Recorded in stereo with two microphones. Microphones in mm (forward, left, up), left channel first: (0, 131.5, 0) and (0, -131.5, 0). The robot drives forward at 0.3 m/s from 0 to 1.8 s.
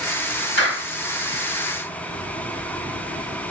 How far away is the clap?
About 2 m.